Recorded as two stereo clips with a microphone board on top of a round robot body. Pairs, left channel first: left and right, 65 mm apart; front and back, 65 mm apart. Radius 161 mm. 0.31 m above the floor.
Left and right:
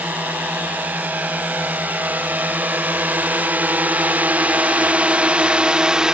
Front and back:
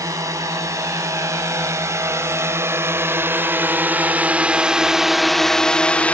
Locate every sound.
0.0 s a drone: 155° right; by 6.1 s 25° right